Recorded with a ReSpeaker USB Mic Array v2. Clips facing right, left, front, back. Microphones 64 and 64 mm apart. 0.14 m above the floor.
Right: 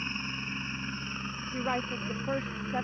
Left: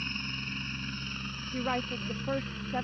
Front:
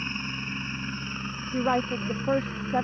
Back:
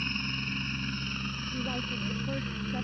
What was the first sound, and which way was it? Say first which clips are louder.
A helicopter: right 1 dB, front 1 dB; 50° right.